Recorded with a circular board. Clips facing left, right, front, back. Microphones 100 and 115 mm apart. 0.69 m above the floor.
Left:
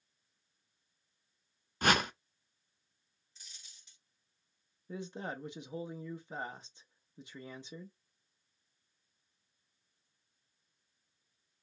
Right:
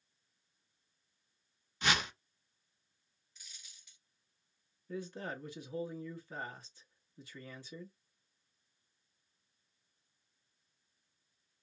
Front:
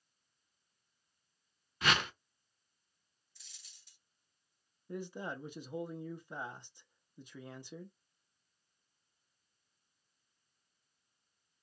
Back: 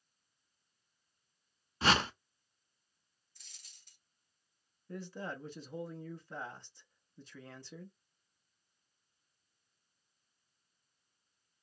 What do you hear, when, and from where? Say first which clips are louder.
1.8 s a whoosh: left 5 dB, back 3 dB; 125° left, 0.5 m
3.4 s a dropped coin: even, even; 145° left, 1.4 m
4.9 s a man speaking: even, front 1 dB; 55° left, 0.7 m